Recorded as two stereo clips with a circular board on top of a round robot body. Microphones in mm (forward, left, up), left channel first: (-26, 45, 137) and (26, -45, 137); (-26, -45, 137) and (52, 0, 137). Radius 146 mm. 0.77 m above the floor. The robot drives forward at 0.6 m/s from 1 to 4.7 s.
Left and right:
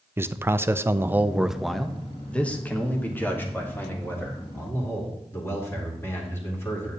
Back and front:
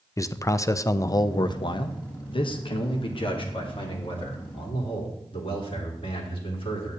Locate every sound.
0.2 s a man speaking: 115° right, 0.6 m; by 7.0 s 170° right, 2.5 m